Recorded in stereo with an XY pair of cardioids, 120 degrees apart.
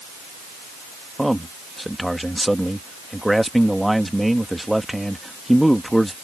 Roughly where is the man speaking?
Ahead.